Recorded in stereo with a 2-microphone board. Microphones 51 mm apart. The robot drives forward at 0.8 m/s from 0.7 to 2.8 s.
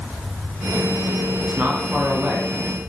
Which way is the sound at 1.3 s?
40° right (ahead or behind).